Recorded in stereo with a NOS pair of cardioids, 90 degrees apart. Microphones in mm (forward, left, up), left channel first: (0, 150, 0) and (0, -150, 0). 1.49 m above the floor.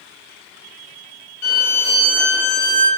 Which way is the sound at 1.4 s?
70° left.